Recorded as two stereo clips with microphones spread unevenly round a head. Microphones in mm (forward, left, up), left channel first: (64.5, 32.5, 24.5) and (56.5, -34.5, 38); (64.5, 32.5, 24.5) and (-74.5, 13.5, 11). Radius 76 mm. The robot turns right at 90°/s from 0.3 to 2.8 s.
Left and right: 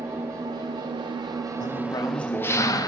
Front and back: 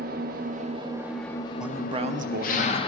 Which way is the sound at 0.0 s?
165° right.